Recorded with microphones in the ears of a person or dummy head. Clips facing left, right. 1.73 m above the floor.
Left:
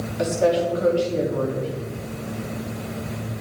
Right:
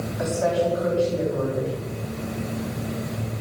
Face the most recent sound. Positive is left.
turn(degrees=45)  # may be behind; listen again after turning